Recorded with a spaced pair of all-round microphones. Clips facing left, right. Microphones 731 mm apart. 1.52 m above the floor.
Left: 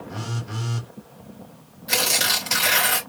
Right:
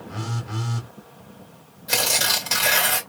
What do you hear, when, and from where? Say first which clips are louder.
0.1 s a phone buzzing: right 2 dB; 10° left (ahead or behind), 1.9 m
1.9 s tearing paper: even; 5° left (ahead or behind), 2.5 m